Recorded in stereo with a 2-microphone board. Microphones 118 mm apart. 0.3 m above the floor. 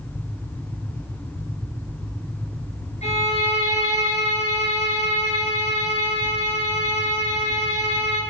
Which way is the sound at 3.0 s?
70° left (ahead or behind).